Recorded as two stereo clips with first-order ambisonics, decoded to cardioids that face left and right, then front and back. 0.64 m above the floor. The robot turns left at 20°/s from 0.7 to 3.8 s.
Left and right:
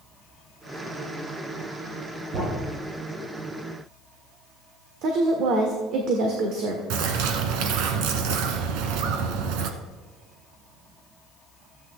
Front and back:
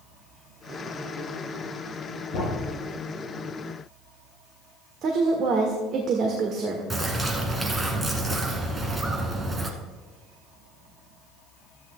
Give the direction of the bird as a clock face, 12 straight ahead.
3 o'clock.